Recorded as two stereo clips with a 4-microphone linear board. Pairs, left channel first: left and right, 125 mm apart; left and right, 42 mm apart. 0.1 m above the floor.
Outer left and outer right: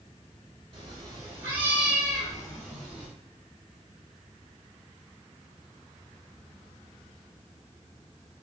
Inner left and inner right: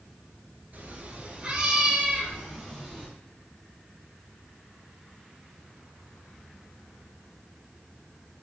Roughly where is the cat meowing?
Right.